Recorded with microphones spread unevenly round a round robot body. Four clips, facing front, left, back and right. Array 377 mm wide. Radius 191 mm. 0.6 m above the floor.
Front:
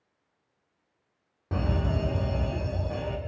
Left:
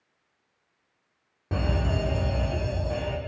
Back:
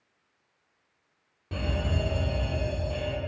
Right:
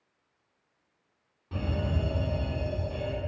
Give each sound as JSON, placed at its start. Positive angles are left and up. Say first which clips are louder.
{"t": 1.5, "sound": "a fire alarm", "louder": "left 4 dB, front 2 dB", "azimuth_deg": 50, "distance_m": 3.0}